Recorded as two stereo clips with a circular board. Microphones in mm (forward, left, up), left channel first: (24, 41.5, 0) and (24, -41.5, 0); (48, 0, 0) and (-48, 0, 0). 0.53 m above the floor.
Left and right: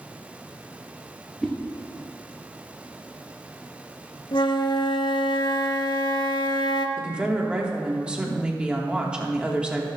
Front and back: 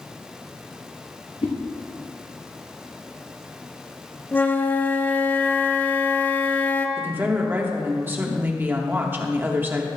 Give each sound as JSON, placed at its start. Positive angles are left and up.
{"t": 1.4, "sound": "a whoosh", "azimuth_deg": 10, "distance_m": 2.0}
{"t": 4.3, "sound": "a flute", "azimuth_deg": 70, "distance_m": 0.8}
{"t": 7.0, "sound": "a woman speaking", "azimuth_deg": -150, "distance_m": 1.2}